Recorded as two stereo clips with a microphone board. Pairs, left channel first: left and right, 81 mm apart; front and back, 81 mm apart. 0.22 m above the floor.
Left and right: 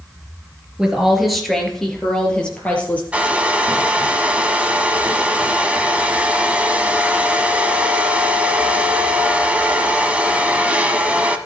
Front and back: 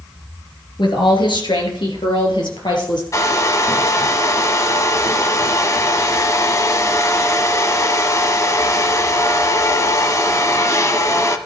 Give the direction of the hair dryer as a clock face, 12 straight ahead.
1 o'clock.